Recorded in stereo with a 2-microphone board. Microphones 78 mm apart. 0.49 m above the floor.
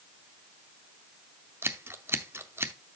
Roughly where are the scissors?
Right.